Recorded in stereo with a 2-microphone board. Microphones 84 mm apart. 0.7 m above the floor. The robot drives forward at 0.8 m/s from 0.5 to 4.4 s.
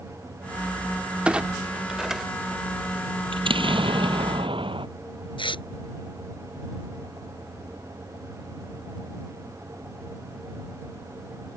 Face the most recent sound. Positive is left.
turn(degrees=80)